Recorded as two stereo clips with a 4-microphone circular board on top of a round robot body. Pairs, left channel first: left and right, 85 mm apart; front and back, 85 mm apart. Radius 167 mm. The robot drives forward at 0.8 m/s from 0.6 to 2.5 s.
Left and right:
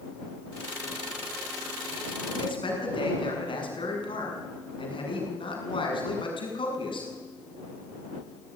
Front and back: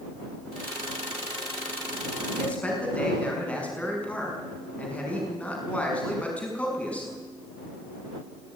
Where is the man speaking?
75° left, 6 m.